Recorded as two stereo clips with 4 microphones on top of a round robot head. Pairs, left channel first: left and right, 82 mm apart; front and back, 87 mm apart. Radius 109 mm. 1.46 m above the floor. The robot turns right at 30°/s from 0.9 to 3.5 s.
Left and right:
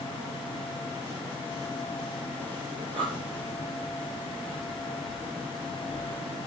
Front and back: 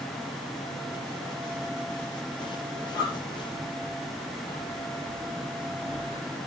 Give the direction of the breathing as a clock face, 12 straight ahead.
3 o'clock.